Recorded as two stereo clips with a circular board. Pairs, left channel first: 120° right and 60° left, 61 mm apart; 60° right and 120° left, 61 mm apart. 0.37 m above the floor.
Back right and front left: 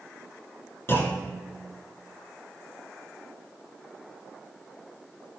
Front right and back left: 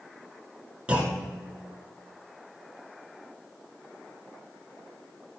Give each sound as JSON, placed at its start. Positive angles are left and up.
{"t": 0.9, "sound": "a clunk", "azimuth_deg": -170, "distance_m": 1.3}